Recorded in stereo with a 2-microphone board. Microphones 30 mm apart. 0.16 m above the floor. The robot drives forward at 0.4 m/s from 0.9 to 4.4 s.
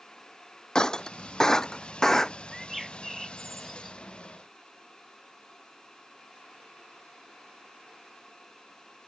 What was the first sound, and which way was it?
Breaking glass, 25° left (ahead or behind).